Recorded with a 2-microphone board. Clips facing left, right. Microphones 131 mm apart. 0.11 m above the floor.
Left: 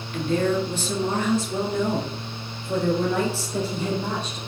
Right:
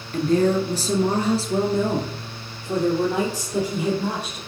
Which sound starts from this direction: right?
A woman speaking, at 0.1 s.